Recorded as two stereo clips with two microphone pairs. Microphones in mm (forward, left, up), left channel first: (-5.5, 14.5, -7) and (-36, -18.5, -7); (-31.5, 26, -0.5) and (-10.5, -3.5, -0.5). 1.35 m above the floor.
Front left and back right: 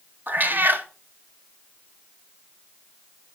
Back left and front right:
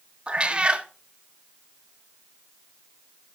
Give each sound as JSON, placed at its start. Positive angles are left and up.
{"t": 0.3, "sound": "a cat meowing", "azimuth_deg": -105, "distance_m": 0.8}